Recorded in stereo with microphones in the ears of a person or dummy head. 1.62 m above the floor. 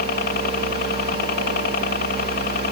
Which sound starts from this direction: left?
A helicopter, at 0.0 s.